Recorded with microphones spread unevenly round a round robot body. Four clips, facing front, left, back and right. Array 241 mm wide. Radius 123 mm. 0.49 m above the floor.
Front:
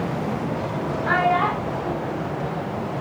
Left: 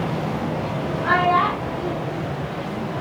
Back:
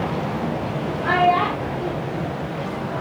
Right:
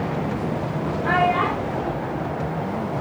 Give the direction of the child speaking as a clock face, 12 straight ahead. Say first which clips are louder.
Left 2 dB, back 2 dB; 6 o'clock.